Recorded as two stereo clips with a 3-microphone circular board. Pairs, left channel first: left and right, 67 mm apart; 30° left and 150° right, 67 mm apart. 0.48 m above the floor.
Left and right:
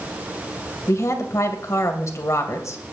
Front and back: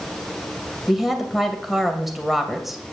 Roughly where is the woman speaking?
Behind left.